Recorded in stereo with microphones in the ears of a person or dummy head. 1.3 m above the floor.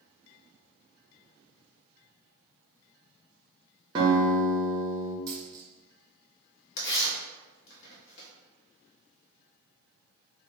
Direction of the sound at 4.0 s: 25° right (ahead or behind).